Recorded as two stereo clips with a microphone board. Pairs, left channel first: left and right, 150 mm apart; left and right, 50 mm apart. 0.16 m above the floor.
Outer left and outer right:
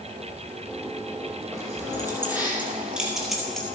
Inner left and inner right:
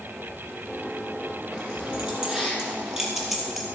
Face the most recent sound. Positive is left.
turn(degrees=5)  # may be behind; listen again after turning